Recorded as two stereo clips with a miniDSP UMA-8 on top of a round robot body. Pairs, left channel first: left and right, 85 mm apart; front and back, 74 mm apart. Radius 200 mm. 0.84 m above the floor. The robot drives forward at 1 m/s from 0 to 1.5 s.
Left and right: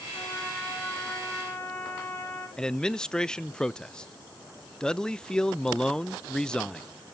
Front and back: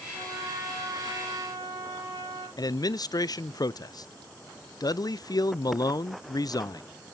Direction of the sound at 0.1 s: 155° left.